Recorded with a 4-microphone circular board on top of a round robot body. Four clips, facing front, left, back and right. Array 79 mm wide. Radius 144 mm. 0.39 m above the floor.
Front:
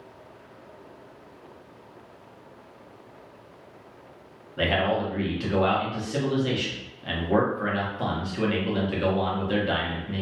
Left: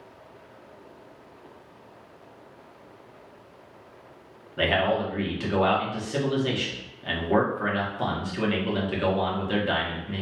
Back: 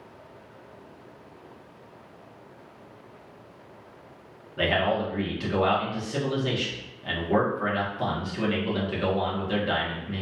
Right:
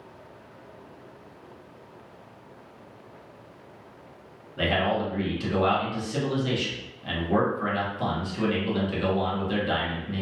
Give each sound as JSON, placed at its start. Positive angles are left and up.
{"t": 4.6, "sound": "a man speaking", "azimuth_deg": 80, "distance_m": 1.0}